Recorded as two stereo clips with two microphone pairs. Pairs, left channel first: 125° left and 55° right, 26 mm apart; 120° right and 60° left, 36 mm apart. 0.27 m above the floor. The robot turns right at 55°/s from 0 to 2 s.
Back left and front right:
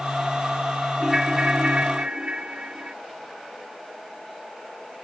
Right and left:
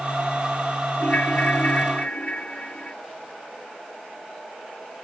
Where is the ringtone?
135° right; by 2.9 s 80° right.